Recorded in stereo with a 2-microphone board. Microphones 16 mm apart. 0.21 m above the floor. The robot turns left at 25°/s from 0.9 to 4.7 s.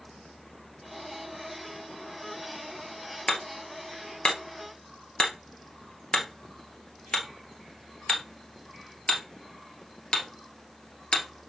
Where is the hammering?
40° left (ahead or behind), 1.6 m; by 11.3 s 70° left (ahead or behind), 1.6 m.